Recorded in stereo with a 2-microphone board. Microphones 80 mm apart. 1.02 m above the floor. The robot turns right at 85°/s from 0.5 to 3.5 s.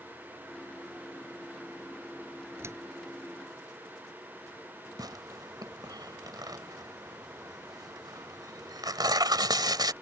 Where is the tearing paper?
65° right (ahead or behind).